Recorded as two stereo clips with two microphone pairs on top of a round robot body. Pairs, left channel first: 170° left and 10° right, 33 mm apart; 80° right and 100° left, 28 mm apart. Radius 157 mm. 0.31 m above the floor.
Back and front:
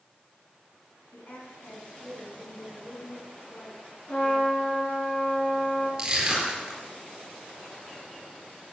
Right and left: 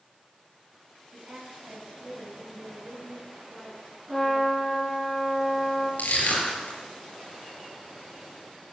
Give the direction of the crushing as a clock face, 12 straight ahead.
3 o'clock.